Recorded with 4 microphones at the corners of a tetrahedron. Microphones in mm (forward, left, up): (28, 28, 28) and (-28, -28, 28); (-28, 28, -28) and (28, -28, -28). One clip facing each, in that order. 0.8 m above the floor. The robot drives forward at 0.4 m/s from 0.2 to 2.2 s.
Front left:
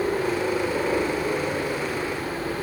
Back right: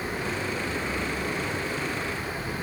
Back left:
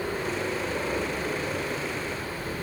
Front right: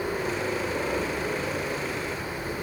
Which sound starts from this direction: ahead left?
A helicopter, at 0.0 s.